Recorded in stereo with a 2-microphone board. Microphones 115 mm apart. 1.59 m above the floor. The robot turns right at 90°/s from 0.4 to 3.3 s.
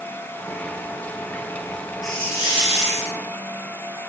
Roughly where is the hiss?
Ahead.